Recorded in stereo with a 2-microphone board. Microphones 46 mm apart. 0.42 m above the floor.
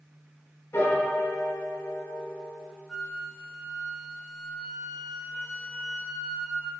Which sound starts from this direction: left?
A piano, at 0.7 s.